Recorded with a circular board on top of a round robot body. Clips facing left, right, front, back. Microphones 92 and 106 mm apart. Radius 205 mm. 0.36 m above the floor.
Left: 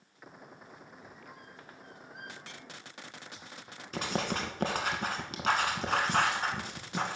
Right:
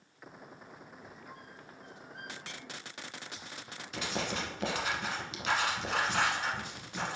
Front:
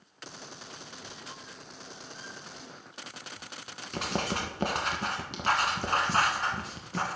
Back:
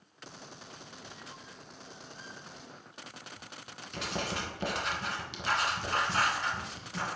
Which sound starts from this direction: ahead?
A squeak, at 1.0 s.